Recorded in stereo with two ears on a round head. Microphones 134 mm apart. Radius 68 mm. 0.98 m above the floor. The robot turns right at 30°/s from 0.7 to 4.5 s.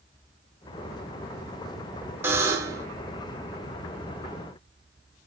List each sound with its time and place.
2.2 s a buzzer: 15° right (ahead or behind), 0.6 m; by 2.9 s 20° right (ahead or behind), 0.6 m